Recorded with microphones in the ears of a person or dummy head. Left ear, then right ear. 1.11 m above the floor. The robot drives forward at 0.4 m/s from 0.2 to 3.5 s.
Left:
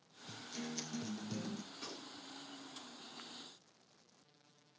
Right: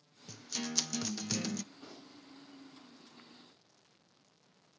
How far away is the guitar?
About 0.8 m.